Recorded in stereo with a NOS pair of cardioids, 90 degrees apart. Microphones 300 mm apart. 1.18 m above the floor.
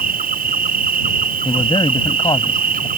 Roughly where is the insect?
Ahead right.